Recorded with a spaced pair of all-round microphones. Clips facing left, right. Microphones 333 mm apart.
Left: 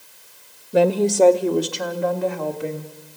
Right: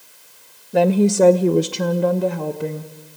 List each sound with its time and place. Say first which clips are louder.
0.7 s a woman speaking: right 1 dB; 10° left (ahead or behind), 0.6 m; by 2.9 s 55° right (ahead or behind), 1.5 m